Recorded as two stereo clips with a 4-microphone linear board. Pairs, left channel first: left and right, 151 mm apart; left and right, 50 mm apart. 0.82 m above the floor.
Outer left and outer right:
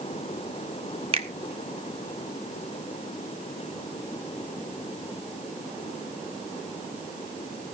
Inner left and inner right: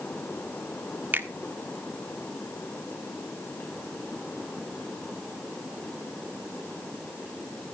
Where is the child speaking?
I don't hear a child speaking.